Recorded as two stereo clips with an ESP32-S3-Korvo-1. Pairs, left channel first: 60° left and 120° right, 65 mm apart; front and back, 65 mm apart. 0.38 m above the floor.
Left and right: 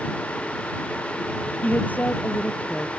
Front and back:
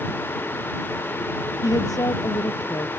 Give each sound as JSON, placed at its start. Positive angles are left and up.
{"t": 1.6, "sound": "a woman speaking", "azimuth_deg": -5}